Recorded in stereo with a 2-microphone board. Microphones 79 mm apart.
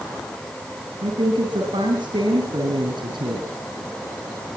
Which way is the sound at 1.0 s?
75° right (ahead or behind).